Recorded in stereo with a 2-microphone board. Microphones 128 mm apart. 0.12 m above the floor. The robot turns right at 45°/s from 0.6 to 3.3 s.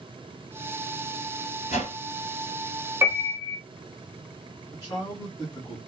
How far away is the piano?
About 1.0 m.